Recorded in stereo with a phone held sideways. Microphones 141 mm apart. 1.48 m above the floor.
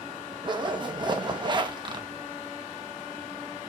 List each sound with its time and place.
0.4 s a zipper: 35° right (ahead or behind), 0.8 m